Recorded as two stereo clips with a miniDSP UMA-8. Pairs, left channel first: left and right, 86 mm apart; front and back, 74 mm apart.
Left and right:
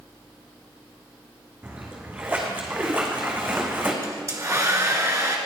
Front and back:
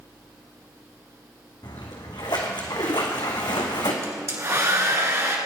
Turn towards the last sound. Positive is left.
turn(degrees=-135)